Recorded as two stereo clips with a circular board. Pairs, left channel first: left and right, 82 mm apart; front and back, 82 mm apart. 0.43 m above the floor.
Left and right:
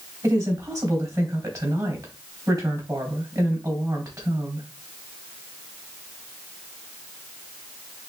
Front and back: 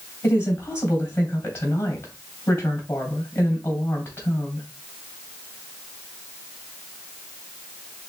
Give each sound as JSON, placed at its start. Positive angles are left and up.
{"t": 0.2, "sound": "a woman speaking", "azimuth_deg": -60, "distance_m": 3.0}